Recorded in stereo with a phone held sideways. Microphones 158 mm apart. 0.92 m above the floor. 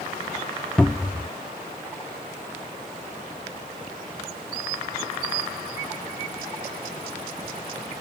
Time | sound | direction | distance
0.8 | a cupboard door | 5° left (ahead or behind) | ?